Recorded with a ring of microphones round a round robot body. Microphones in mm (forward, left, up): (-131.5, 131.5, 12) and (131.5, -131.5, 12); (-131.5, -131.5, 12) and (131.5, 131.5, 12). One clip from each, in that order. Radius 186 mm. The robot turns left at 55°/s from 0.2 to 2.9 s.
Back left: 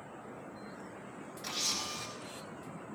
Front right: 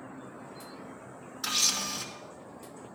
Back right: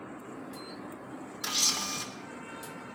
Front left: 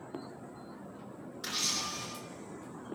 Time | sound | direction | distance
1.4 | a camera shutter | 65° right | 3.5 m